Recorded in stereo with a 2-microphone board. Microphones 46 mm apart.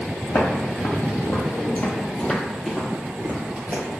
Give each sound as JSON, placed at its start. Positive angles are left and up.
{"t": 0.3, "sound": "footsteps", "side_deg": 70, "distance_m": 1.2}